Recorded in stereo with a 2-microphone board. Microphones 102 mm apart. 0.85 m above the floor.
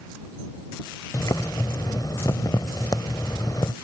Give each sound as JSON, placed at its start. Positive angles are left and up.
{"t": 1.1, "sound": "boiling", "side_deg": 40}